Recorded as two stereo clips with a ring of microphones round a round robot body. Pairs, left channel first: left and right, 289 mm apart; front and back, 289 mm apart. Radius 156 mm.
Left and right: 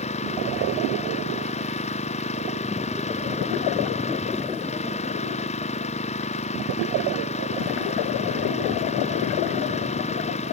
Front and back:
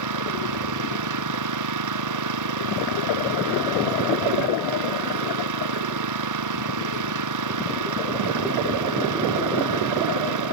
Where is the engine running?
160° left.